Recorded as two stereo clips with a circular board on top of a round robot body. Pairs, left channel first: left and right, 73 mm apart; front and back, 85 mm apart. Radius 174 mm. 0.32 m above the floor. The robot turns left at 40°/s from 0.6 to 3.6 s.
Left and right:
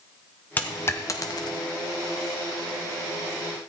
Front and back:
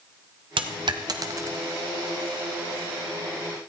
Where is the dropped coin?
160° left, 0.8 m; by 1.6 s 120° left, 0.8 m.